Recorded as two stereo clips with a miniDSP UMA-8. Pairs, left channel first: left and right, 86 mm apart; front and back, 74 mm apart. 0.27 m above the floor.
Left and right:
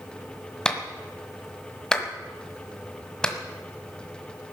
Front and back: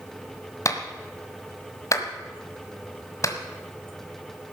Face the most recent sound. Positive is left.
turn(degrees=15)